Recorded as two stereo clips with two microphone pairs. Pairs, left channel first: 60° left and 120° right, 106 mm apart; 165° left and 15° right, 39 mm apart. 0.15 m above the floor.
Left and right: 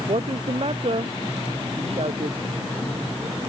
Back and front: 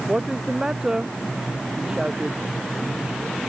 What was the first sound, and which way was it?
A woman speaking, 90° right.